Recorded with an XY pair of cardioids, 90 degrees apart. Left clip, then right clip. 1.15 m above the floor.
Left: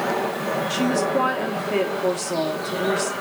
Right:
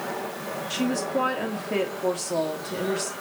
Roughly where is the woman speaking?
Ahead.